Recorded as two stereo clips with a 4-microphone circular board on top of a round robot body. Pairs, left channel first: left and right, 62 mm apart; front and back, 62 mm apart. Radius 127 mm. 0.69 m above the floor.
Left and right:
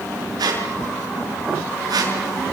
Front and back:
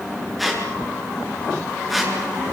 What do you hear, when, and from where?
0.4 s a squeak: 90° right, 5.5 m